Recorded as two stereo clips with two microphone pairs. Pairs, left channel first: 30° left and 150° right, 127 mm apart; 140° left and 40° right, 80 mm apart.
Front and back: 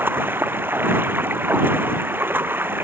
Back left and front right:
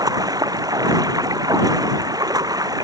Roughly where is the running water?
Right.